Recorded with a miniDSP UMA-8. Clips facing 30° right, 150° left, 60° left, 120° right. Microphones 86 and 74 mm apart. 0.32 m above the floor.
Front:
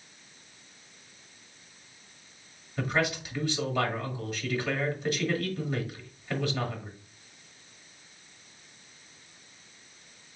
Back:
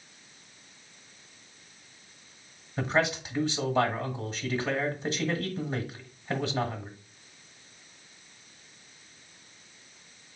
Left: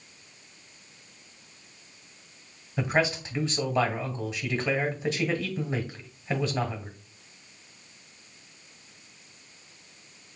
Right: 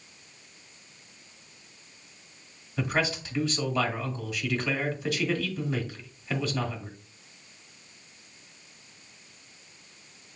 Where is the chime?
I don't hear a chime.